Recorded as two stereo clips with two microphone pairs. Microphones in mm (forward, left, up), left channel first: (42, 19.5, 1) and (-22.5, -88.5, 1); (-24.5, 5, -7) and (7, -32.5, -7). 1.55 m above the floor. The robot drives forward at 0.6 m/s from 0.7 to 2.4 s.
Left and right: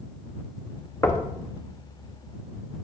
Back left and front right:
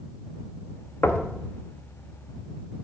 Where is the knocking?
125° left, 0.9 m; by 1.3 s 130° left, 1.0 m.